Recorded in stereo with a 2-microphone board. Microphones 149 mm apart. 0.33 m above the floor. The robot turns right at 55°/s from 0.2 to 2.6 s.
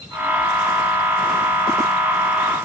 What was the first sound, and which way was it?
Only background noise.